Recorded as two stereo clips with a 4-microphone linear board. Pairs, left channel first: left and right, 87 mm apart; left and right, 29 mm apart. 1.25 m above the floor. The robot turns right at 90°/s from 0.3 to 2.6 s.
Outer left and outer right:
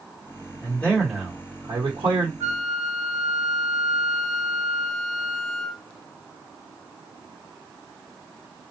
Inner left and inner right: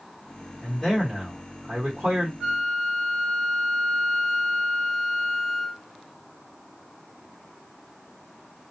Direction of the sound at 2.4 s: 25° right (ahead or behind).